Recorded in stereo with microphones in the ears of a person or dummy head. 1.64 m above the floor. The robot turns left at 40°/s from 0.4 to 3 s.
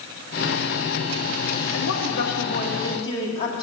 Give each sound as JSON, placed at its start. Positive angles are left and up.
{"t": 1.7, "sound": "a woman speaking", "azimuth_deg": 75, "distance_m": 2.0}